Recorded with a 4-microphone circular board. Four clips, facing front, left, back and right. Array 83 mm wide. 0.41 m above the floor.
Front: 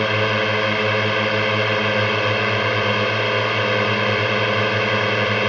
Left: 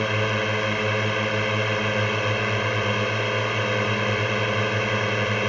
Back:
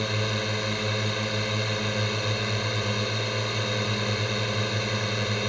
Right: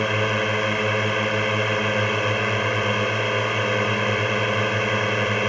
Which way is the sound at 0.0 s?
10° right.